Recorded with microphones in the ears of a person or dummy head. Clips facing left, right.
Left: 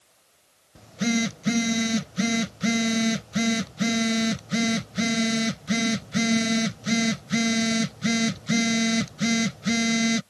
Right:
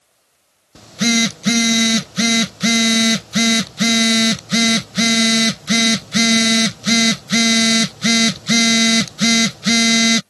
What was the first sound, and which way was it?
A phone buzzing, 80° right.